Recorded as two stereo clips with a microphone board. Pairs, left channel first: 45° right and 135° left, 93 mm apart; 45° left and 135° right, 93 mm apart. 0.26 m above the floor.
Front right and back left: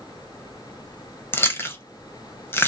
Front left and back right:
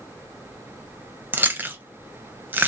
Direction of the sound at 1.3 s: 85° right.